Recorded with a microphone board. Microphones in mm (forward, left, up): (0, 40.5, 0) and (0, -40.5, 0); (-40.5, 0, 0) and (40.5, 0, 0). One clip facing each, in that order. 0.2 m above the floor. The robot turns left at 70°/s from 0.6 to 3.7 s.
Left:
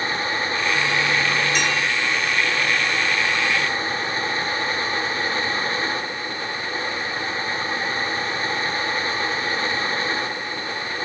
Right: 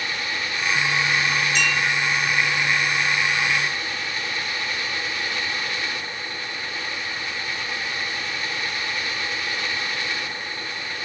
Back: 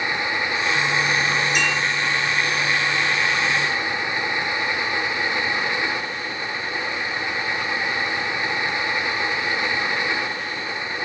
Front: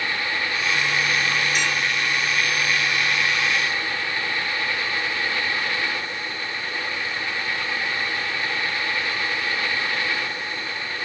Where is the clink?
150° right, 6.5 m; by 1.8 s 165° right, 6.5 m.